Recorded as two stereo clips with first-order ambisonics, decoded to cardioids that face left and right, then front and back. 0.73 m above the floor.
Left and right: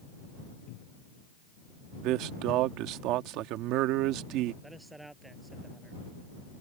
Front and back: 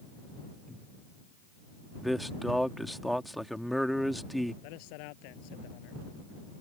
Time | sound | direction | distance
0.7 | a cupboard door | 85° left | ?
2.0 | a man speaking | 90° right | ?
4.6 | a man speaking | 5° right | ?